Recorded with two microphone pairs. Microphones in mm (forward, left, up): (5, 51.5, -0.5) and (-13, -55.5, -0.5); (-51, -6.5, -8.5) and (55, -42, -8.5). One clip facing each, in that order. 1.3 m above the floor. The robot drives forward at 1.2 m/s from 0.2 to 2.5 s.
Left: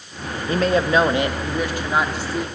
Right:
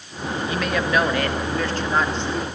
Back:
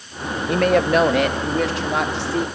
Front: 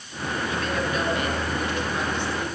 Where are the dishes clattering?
I don't hear dishes clattering.